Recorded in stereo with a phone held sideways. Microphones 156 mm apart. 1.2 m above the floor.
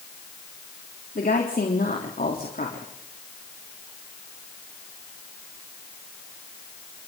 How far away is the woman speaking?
About 3.5 m.